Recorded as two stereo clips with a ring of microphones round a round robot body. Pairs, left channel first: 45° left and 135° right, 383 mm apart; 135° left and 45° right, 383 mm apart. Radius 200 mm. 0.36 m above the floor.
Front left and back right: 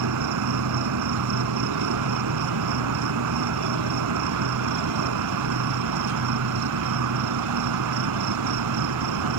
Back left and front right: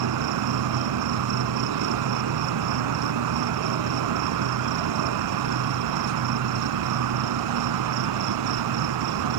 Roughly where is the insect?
Right.